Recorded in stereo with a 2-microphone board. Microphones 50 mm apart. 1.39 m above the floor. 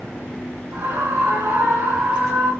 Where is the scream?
85° right, 2.5 m.